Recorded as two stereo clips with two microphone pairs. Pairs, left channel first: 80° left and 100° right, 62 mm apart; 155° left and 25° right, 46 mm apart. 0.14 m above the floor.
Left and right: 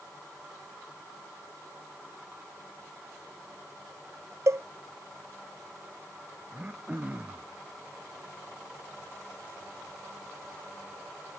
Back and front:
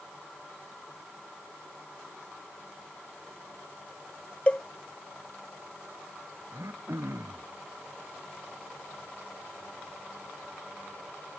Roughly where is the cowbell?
Behind right.